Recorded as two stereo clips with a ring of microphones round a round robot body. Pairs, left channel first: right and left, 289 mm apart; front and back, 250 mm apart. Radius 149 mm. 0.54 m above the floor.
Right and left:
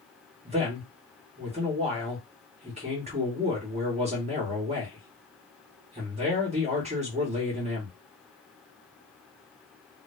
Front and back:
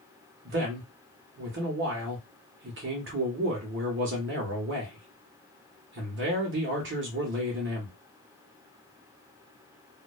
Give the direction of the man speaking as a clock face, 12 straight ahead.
7 o'clock.